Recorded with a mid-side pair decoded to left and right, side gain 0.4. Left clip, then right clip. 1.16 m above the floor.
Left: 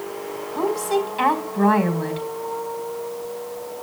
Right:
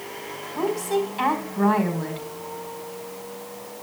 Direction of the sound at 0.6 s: 15° left.